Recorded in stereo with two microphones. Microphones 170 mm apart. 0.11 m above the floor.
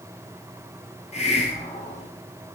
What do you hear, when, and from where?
1.1 s a hiss: 40° left (ahead or behind), 0.9 m